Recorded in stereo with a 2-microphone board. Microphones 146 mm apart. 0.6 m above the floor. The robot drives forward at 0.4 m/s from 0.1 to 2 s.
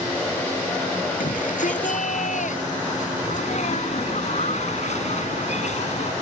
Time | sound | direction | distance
1.2 | a shout | 65° left (ahead or behind) | ?
3.2 | a sneeze | 55° left (ahead or behind) | ?